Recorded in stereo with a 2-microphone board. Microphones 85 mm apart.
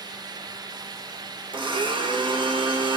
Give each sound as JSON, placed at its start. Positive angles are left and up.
{"t": 1.5, "sound": "a blender", "side_deg": -65, "distance_m": 1.3}